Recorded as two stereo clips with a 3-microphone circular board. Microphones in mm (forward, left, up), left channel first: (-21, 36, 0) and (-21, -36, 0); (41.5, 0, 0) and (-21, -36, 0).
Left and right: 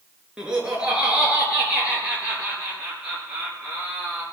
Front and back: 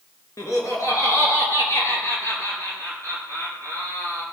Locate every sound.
0.4 s laughter: 15° right, 3.5 m; by 4.2 s 20° right, 6 m